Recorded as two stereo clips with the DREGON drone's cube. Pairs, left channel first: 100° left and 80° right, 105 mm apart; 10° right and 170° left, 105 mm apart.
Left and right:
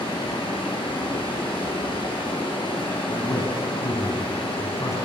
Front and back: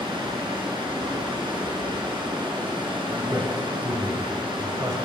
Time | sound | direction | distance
0.0 | running water | 130° left | 2.5 m
3.1 | a man speaking | 135° left | 1.4 m